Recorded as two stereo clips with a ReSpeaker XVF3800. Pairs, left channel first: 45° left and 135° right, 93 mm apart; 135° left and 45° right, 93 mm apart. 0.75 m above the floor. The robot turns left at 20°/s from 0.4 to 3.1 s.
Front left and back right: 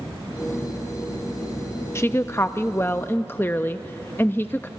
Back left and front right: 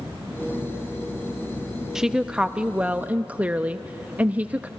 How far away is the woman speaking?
About 0.5 m.